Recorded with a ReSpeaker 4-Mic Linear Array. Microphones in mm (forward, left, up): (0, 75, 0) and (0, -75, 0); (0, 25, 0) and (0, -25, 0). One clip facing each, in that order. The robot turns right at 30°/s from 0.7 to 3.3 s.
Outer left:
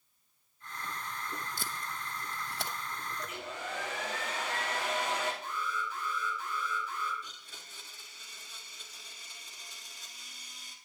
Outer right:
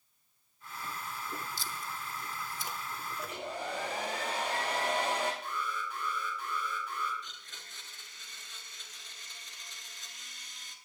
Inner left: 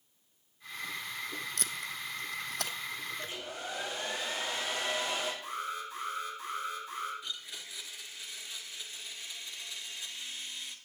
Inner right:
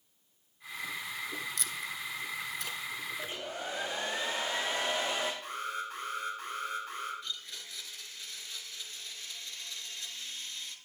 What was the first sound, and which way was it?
Tape being pulled, 55° left (ahead or behind).